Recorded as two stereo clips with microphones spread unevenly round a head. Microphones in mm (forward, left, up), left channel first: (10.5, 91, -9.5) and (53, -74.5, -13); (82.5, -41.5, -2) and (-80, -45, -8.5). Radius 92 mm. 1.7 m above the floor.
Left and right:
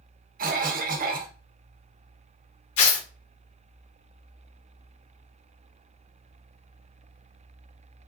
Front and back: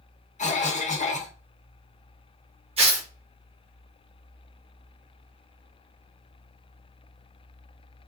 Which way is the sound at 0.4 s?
40° right.